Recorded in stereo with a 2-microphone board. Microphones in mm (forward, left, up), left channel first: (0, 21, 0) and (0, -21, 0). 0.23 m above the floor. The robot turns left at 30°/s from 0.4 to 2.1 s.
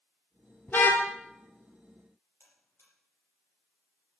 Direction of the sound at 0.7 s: 45° left (ahead or behind).